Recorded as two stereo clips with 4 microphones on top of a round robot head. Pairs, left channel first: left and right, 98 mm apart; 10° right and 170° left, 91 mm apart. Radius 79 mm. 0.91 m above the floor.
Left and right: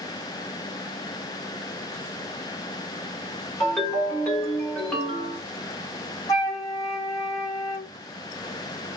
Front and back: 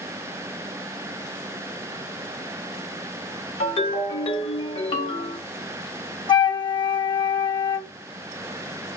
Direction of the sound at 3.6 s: 10° left.